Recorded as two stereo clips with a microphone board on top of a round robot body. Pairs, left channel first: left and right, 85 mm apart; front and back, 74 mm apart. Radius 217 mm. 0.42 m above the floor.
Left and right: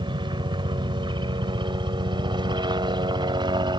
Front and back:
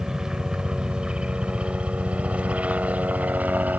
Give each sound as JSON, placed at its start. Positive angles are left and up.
{"t": 0.0, "sound": "a helicopter", "azimuth_deg": -100}